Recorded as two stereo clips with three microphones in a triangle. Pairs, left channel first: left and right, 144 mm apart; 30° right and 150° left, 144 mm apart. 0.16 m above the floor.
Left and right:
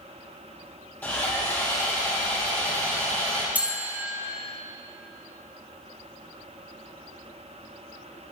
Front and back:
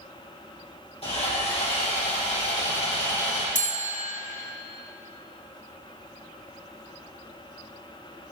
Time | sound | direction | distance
1.0 | sawing | 10° left | 3 m
3.5 | a bell | 10° right | 1.0 m